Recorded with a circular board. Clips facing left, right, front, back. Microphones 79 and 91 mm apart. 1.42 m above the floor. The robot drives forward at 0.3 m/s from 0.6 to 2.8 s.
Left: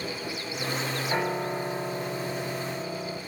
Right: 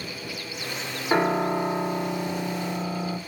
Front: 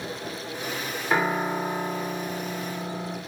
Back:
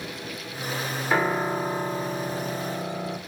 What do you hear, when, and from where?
1.1 s a piano: 80° right, 1.9 m; by 3.2 s 95° right, 1.9 m